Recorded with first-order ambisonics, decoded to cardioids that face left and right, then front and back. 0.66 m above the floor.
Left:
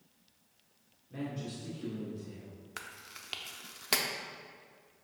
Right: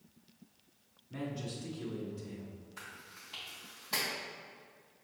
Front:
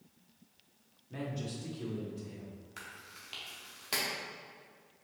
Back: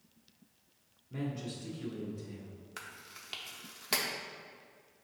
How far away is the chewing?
About 0.6 m.